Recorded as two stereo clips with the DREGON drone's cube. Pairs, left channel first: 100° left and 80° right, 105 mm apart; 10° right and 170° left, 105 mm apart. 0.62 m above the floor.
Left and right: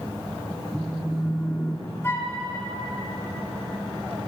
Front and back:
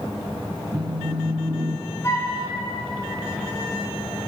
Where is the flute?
40° left, 1.2 m.